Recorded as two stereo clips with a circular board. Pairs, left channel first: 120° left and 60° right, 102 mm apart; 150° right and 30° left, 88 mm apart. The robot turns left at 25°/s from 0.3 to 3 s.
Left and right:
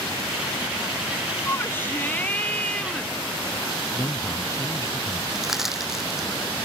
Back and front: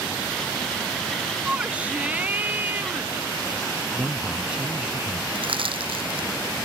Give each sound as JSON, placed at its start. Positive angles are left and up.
{"t": 1.4, "sound": "a shout", "azimuth_deg": 95}
{"t": 4.0, "sound": "a man speaking", "azimuth_deg": 100}
{"t": 5.3, "sound": "crushing", "azimuth_deg": 25}